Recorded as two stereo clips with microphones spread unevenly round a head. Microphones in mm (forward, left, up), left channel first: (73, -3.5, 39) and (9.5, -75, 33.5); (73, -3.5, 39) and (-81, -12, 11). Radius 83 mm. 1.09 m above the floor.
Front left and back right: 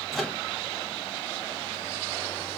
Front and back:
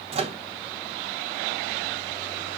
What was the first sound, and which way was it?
A microwave, 140° left.